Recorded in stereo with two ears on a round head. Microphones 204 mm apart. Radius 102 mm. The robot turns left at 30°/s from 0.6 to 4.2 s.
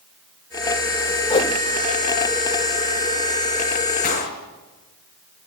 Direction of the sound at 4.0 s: 40° left (ahead or behind).